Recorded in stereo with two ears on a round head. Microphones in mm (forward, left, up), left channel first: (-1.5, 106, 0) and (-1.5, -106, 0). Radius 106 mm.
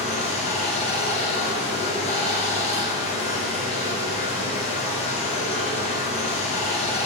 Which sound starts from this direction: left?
Running water, at 0.0 s.